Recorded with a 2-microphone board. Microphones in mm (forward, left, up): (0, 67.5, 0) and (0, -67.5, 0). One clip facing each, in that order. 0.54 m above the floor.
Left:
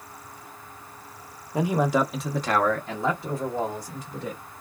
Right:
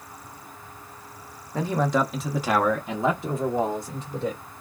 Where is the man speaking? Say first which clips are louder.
Left 1 dB; 15° left (ahead or behind), 0.7 m; by 4.4 s 30° right (ahead or behind), 1.3 m.